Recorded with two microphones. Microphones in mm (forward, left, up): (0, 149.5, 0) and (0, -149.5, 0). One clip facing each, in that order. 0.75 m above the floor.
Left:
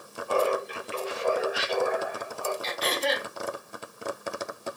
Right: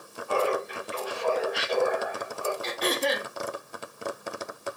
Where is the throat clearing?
60° right (ahead or behind), 0.6 m.